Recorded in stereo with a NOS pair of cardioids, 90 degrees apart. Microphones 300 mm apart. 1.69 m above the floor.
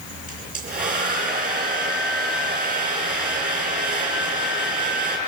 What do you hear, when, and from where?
0.3 s a hair dryer: 30° right, 8 m